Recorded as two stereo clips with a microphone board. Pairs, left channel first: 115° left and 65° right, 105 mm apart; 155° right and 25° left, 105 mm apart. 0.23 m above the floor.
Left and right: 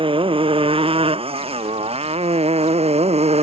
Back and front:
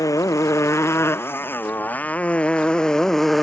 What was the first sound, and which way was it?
A motorcycle, 100° right.